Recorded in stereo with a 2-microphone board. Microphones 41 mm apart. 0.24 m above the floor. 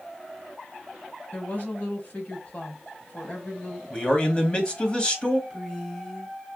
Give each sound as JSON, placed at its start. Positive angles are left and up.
{"t": 1.3, "sound": "a woman speaking", "side_deg": 40, "distance_m": 1.2}
{"t": 3.9, "sound": "a man speaking", "side_deg": 25, "distance_m": 1.1}
{"t": 5.5, "sound": "a woman speaking", "side_deg": 10, "distance_m": 1.6}